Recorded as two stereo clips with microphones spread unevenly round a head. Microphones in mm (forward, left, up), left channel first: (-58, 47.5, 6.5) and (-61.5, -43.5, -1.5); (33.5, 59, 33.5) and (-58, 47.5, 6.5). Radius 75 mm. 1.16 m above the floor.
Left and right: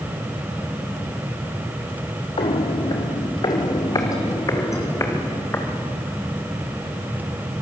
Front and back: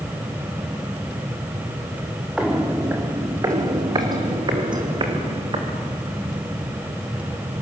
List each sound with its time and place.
2.4 s footsteps: 95° left, 2 m; by 6.2 s 150° left, 6.5 m